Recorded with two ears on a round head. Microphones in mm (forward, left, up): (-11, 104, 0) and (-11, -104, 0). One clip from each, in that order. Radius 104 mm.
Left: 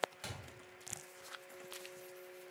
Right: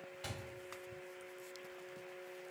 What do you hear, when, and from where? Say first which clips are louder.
0.2 s a thud: right 1 dB; 65° left (ahead or behind), 2 m